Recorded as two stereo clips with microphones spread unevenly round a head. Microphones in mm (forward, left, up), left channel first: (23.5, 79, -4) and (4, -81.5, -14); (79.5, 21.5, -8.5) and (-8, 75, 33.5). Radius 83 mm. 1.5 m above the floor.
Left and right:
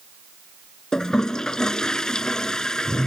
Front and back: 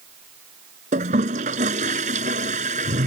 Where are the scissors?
No scissors in this recording.